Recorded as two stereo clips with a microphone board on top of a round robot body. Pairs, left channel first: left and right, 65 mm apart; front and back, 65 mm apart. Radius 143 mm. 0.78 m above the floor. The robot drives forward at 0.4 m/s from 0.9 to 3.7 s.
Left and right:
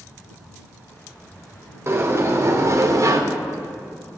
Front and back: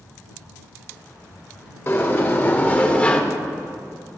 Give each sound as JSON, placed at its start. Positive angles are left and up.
{"t": 1.9, "sound": "a sliding door", "azimuth_deg": -45, "distance_m": 1.3}